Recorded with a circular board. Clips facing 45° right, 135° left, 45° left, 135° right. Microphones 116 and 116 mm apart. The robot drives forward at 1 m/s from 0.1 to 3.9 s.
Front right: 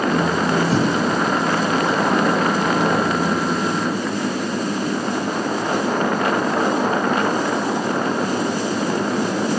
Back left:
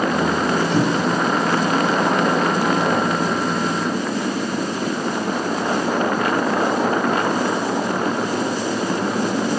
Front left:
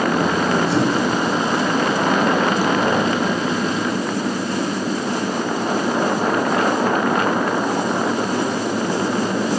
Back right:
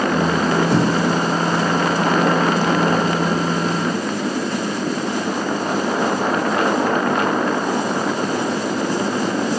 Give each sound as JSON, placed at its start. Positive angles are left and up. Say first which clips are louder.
{"t": 0.7, "sound": "a whoosh", "louder": "even, back right 1 dB", "azimuth_deg": -95, "distance_m": 5.5}